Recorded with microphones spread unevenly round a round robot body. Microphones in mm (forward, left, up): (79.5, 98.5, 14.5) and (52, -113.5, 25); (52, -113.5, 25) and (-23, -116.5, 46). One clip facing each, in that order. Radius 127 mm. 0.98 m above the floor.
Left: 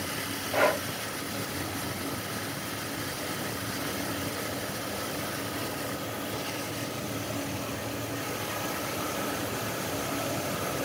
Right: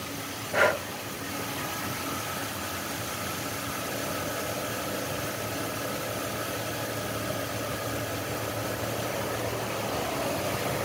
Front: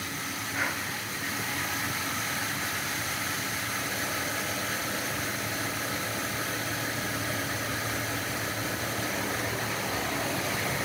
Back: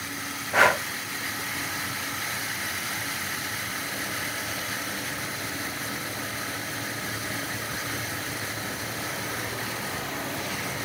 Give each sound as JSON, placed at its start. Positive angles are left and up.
{"t": 0.5, "sound": "breathing", "azimuth_deg": 180}